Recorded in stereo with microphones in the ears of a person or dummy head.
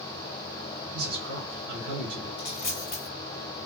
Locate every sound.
0.9 s a man speaking: 80° right, 1.4 m
2.4 s a dropped coin: 30° left (ahead or behind), 1.8 m